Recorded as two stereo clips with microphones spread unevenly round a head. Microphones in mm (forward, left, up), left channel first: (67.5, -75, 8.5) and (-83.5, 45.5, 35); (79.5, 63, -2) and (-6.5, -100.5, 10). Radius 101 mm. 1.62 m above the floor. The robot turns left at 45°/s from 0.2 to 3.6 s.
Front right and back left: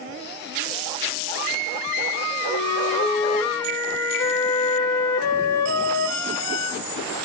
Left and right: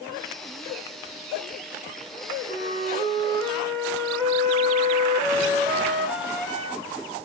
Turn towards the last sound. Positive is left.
turn(degrees=-30)